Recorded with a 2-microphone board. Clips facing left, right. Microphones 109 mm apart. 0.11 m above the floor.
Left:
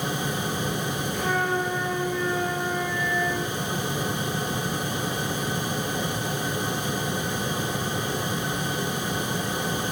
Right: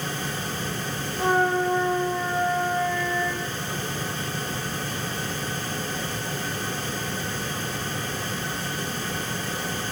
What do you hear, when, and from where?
1.1 s a flute: 35° right (ahead or behind), 9.5 m